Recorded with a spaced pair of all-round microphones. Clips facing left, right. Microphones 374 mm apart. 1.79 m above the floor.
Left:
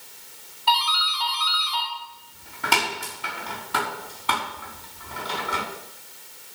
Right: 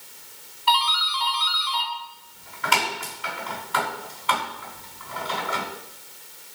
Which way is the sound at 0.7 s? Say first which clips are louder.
Right 1 dB; 55° left (ahead or behind).